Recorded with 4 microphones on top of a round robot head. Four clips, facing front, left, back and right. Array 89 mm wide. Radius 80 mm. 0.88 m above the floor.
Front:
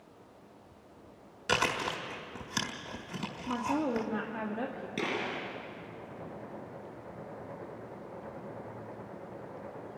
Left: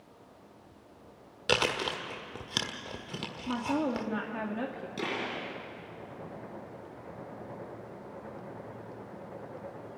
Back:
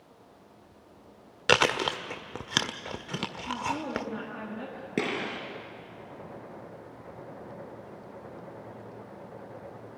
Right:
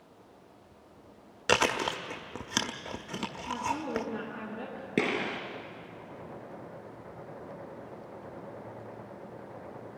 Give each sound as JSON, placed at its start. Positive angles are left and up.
{"t": 1.5, "sound": "chewing", "azimuth_deg": -160, "distance_m": 0.6}
{"t": 3.5, "sound": "a woman speaking", "azimuth_deg": 90, "distance_m": 2.0}
{"t": 5.0, "sound": "a gunshot", "azimuth_deg": -125, "distance_m": 5.0}